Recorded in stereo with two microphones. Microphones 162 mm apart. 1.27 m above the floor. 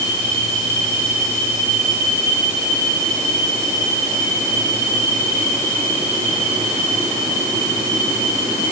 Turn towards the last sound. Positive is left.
No sound to turn to.